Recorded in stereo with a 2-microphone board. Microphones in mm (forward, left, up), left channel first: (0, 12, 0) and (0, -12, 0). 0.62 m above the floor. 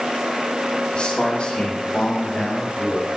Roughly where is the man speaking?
Left.